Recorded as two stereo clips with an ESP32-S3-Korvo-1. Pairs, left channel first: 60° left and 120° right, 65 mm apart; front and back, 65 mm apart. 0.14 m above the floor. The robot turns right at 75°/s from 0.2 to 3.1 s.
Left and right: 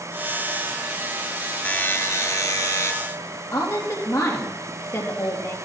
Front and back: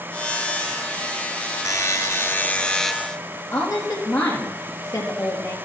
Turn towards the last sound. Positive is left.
turn(degrees=15)